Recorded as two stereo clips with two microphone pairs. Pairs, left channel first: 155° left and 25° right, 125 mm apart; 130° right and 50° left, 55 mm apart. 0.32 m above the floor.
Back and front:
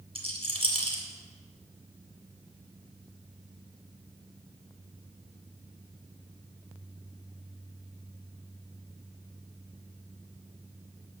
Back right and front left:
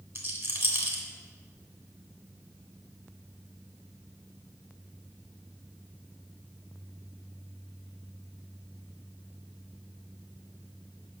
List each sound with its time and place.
0.1 s a rattle: 10° left, 1.9 m